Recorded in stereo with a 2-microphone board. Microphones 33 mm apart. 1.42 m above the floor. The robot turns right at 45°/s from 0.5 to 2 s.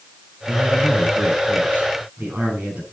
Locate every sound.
0.5 s a man speaking: 115° right, 8 m; by 2.8 s 45° right, 8 m